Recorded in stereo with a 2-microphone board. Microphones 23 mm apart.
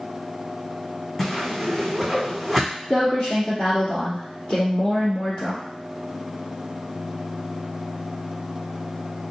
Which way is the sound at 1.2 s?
15° left (ahead or behind).